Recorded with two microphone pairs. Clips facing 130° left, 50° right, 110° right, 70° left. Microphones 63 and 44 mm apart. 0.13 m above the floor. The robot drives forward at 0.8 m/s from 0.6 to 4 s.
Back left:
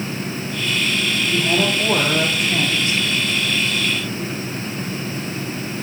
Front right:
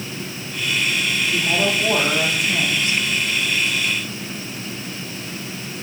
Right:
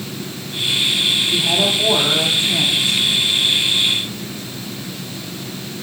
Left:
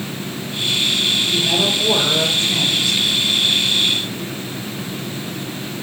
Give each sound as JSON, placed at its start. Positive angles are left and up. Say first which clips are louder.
{"t": 1.3, "sound": "a woman speaking", "louder": "back left 2 dB, even", "azimuth_deg": -170, "distance_m": 4.0}